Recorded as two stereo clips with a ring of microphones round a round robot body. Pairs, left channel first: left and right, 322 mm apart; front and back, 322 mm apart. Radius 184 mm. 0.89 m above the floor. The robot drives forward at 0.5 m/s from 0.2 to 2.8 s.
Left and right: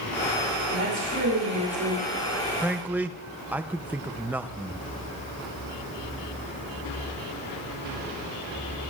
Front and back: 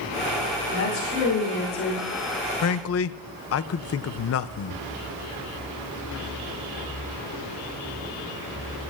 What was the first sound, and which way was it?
A woman speaking, 40° right.